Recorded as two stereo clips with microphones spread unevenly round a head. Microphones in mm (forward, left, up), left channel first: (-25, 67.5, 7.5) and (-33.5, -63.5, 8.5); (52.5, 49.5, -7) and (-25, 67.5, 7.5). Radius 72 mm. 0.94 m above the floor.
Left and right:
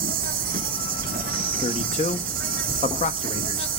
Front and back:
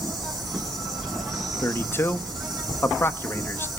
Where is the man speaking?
40° left, 1.4 m.